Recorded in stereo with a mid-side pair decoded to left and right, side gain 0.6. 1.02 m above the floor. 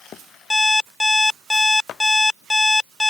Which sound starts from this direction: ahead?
An alarm clock, at 0.5 s.